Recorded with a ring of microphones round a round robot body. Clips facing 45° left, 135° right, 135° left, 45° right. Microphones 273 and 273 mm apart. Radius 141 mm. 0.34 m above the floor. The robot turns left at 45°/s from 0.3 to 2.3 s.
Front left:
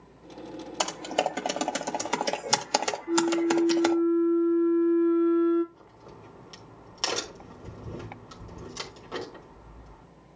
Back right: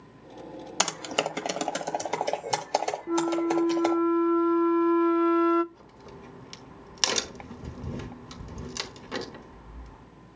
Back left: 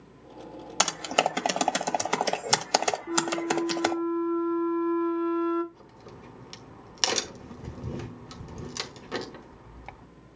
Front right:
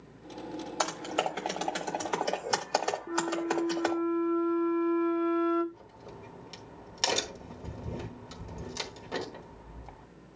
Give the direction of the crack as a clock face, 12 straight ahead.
6 o'clock.